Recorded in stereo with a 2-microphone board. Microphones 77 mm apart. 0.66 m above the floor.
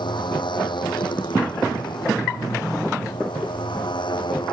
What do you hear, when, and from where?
0.0 s a motorcycle: 80° left; by 4.5 s 90° left